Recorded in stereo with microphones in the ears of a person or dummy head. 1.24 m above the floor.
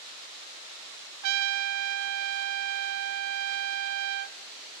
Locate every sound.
1.2 s a trumpet: 75° right (ahead or behind), 0.6 m